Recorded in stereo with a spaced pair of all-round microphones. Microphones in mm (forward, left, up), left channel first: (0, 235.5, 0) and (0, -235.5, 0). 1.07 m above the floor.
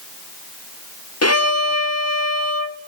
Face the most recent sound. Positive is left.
turn(degrees=30)  # may be behind; listen again after turning